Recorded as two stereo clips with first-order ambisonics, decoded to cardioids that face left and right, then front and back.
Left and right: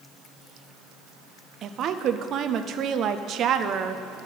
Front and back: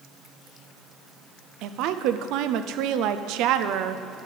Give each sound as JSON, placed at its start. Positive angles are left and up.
{"t": 1.6, "sound": "a woman speaking", "azimuth_deg": -145, "distance_m": 0.6}